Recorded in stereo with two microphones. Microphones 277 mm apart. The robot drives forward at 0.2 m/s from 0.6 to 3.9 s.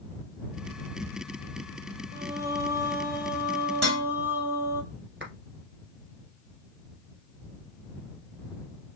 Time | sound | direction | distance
2.1 | singing | 10° right (ahead or behind) | 0.7 m
3.8 | dishes clattering | 60° right (ahead or behind) | 2.5 m
5.2 | a clap | 45° right (ahead or behind) | 1.8 m